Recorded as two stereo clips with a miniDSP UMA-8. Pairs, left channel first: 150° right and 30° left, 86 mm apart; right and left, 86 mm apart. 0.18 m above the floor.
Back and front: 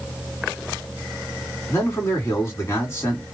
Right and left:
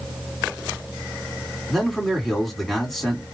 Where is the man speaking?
175° right, 1.9 m.